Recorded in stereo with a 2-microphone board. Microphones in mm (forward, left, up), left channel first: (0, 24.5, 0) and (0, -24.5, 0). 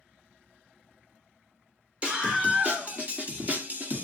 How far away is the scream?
About 2.5 m.